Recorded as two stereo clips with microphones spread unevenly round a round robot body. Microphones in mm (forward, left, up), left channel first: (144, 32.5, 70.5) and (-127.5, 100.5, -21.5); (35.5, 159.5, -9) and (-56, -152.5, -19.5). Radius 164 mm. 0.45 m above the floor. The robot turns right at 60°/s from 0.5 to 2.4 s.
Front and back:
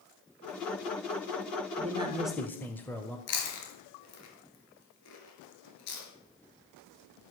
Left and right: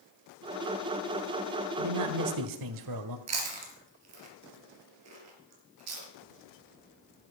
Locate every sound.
1.8 s a man speaking: 145° right, 1.4 m; by 3.2 s 110° right, 1.4 m
3.3 s chewing: 60° right, 4 m